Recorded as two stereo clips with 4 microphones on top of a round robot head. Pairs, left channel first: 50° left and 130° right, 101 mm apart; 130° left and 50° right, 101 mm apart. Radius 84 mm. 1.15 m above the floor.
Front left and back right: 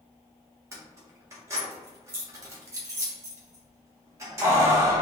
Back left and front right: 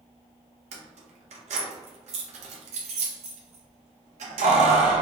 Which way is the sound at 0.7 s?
65° right.